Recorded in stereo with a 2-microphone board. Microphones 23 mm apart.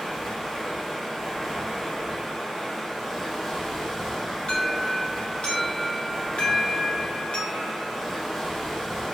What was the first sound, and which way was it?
Running water, 15° right (ahead or behind).